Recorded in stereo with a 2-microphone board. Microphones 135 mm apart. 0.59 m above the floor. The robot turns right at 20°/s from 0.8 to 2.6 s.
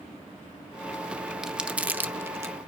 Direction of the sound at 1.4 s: 5° right (ahead or behind).